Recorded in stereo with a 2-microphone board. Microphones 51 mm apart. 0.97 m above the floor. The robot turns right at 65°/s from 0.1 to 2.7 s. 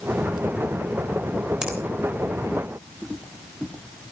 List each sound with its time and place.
1.6 s a finger snap: 15° right (ahead or behind), 3.5 m; by 1.8 s 25° right (ahead or behind), 3.5 m